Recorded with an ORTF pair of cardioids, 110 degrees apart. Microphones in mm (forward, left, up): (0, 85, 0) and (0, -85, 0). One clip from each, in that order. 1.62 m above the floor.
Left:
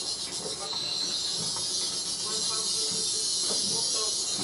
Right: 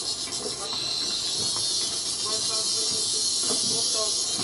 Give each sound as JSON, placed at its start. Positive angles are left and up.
{"t": 0.0, "sound": "an insect", "azimuth_deg": -20, "distance_m": 0.7}